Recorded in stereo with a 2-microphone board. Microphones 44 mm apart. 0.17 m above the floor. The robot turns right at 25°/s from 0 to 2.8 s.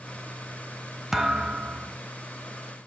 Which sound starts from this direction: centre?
A thud, at 1.1 s.